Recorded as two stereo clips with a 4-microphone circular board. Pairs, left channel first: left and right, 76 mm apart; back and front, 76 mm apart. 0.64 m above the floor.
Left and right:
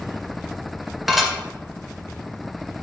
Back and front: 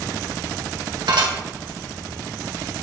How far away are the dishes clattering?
About 1.3 m.